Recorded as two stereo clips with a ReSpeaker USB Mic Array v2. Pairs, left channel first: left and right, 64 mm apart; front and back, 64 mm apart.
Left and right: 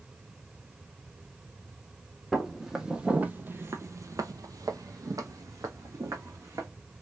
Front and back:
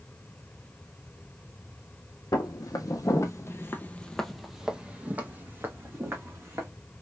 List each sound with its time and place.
2.3 s footsteps: straight ahead, 1.0 m; by 6.7 s 130° right, 1.6 m